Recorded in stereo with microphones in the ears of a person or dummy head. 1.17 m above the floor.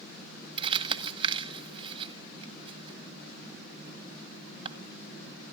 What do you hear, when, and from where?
0.6 s crumpling: 25° right (ahead or behind), 1.7 m